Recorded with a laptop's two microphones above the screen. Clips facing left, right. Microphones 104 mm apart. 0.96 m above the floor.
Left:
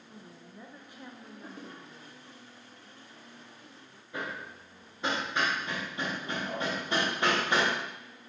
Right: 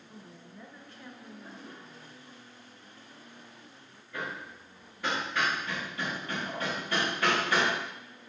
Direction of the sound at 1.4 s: 75° left (ahead or behind).